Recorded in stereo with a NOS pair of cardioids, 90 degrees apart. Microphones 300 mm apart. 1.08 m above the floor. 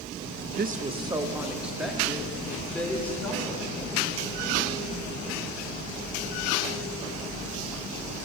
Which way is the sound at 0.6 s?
35° right.